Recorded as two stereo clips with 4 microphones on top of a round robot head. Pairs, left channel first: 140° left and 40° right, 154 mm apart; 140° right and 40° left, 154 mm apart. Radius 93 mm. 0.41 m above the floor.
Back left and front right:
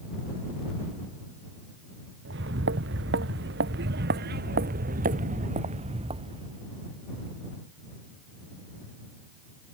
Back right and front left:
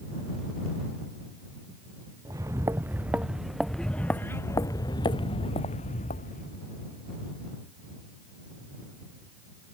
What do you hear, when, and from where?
2.2 s footsteps: 30° right; by 6.6 s 100° right